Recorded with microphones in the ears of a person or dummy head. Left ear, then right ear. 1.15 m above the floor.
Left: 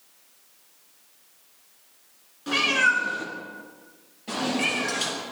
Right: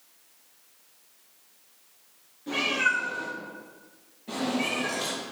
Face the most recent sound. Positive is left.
turn(degrees=45)  # may be behind; listen again after turning